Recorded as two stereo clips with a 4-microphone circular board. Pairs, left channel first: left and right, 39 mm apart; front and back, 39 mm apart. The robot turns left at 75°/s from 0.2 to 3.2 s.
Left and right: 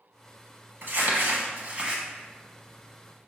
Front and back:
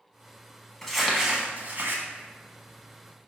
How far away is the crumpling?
About 0.8 m.